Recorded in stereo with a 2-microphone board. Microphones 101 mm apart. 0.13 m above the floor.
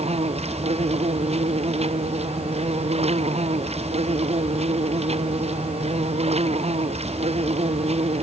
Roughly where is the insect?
Right.